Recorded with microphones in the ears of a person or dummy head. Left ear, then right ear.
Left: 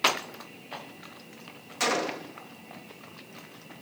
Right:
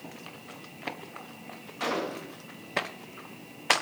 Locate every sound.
1.8 s a gunshot: 70° left (ahead or behind), 1.7 m